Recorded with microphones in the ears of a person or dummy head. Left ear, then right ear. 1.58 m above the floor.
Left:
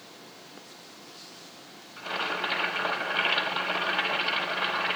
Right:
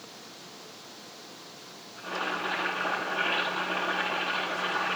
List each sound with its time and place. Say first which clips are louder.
2.0 s boiling: left 2 dB; 65° left (ahead or behind), 6 m